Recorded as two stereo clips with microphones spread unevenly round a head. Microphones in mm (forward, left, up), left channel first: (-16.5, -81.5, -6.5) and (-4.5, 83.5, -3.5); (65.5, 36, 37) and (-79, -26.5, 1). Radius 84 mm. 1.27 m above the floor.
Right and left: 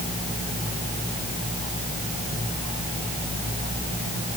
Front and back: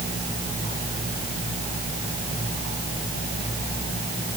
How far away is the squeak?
I don't hear a squeak.